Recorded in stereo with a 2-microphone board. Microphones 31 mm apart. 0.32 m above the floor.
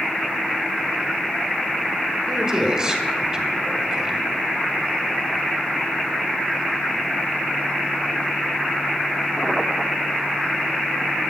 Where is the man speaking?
25° right (ahead or behind), 1.5 m.